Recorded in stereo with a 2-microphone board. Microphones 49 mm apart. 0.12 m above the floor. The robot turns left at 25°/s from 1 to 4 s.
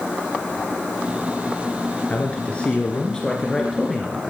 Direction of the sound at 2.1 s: 50° left.